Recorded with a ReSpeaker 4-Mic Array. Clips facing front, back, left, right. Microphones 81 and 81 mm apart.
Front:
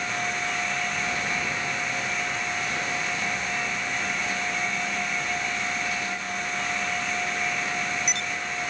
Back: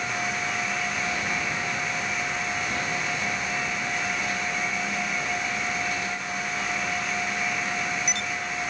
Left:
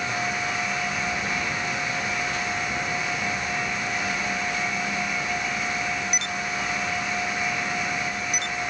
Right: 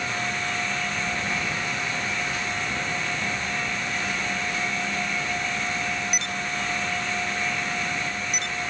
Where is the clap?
No clap in this recording.